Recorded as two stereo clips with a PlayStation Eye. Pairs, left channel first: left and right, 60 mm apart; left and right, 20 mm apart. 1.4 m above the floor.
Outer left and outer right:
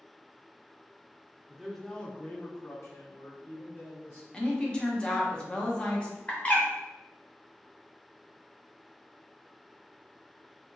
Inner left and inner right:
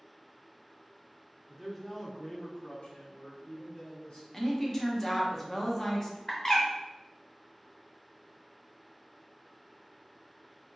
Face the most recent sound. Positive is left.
turn(degrees=25)  # may be behind; listen again after turning